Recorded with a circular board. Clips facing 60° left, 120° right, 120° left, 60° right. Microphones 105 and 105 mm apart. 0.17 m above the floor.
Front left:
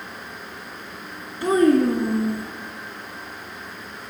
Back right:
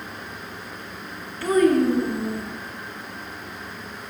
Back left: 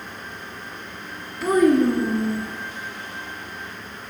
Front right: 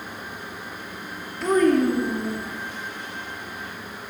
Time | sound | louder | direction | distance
1.4 | a child speaking | front left 1 dB, back left 2 dB | 40° left | 1.0 m